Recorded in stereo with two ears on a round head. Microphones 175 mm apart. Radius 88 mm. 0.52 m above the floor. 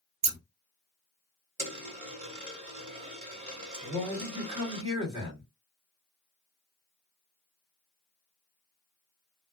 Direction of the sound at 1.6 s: 40° right (ahead or behind).